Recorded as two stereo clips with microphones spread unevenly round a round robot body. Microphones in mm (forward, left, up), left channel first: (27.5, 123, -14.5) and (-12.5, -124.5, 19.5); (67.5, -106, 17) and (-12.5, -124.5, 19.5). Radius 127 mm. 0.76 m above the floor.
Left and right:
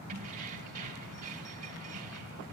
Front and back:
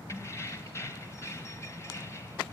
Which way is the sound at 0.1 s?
40° right.